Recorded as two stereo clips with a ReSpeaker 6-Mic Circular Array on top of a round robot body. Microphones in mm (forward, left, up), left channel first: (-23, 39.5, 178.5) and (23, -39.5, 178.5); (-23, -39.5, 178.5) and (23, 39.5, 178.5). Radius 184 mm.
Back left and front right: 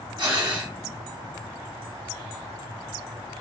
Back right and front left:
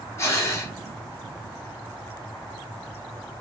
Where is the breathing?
70° right, 1.5 m.